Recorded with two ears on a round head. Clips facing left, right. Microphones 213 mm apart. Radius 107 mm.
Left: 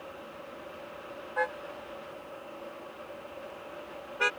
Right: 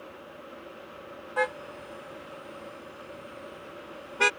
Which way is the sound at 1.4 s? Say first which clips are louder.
Right 4 dB; 55° right (ahead or behind).